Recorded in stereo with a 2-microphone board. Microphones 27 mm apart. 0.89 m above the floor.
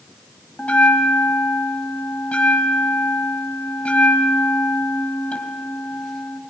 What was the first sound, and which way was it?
A bell, 50° left (ahead or behind).